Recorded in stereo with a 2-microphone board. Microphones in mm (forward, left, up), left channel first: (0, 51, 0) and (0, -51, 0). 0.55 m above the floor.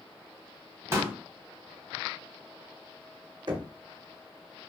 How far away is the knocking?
About 0.7 m.